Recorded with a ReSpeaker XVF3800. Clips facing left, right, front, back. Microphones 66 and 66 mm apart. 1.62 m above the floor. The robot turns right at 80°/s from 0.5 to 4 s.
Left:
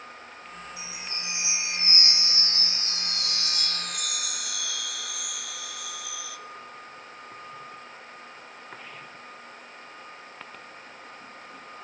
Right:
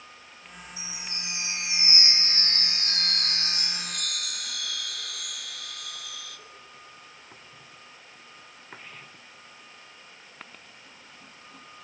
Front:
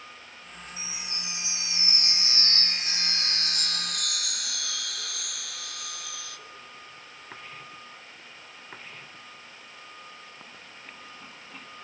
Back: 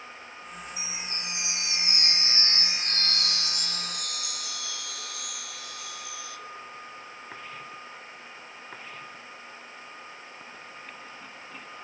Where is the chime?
105° left, 1.8 m; by 6.4 s 5° left, 1.8 m.